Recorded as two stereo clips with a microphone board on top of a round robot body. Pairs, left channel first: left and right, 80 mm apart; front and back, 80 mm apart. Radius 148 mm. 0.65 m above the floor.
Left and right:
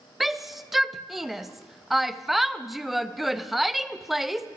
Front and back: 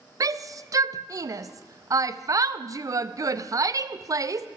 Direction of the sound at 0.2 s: 175° right.